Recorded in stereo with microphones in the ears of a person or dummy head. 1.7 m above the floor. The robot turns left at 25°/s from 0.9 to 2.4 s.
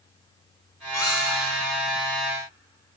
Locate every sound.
0.9 s a squeak: 20° left (ahead or behind), 1.5 m; by 1.6 s 30° left (ahead or behind), 1.5 m